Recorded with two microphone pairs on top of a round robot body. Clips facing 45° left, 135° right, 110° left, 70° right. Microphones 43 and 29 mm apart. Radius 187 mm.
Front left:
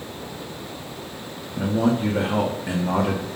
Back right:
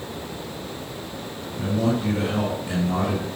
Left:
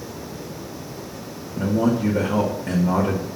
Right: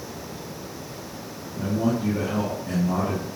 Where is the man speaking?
75° left, 2 m.